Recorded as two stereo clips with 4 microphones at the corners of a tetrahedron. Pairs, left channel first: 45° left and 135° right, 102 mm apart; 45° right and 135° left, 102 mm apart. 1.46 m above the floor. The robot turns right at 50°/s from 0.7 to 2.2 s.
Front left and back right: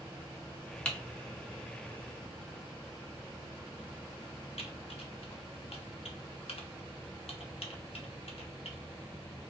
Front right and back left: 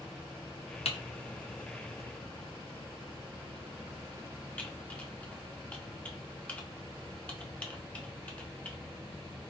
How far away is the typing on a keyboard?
About 0.6 m.